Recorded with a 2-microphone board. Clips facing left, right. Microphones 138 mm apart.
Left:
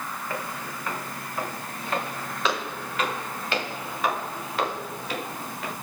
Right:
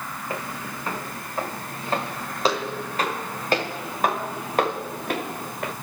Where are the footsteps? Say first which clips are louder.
Right 3 dB; 20° right (ahead or behind), 6.5 m; by 5.7 s 55° right (ahead or behind), 6 m.